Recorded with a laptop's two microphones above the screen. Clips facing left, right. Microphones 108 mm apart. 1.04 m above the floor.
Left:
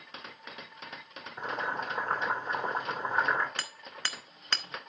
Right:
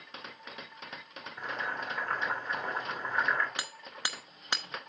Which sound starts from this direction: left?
Boiling, at 1.4 s.